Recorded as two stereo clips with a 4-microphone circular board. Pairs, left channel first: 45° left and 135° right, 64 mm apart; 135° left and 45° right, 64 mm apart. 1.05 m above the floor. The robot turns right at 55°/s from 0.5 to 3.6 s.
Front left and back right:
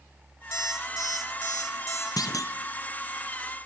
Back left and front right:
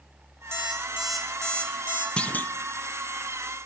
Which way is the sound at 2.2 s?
65° left.